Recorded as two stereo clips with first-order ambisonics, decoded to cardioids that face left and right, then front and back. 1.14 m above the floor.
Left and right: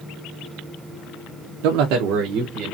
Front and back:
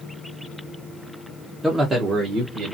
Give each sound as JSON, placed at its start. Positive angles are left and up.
{"t": 1.6, "sound": "a man speaking", "azimuth_deg": -95, "distance_m": 0.5}